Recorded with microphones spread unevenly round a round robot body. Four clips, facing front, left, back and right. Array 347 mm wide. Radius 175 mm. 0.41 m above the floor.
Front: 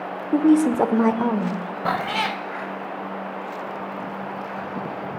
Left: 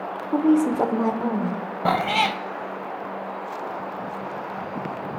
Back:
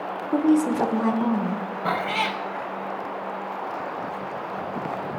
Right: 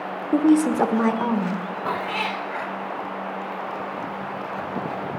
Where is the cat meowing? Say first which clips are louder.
Left 6 dB, front 1 dB; 70° left, 0.5 m.